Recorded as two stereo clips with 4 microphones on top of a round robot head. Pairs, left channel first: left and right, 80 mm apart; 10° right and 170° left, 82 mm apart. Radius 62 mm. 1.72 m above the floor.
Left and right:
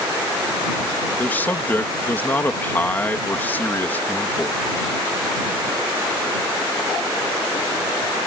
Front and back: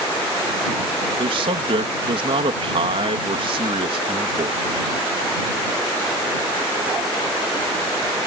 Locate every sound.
1.2 s a man speaking: 160° left